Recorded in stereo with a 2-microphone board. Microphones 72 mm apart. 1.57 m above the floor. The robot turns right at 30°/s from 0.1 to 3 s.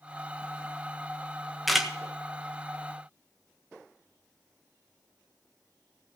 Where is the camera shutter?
Centre (ahead or behind), 1.5 m; by 1.9 s 5° right (ahead or behind), 1.5 m.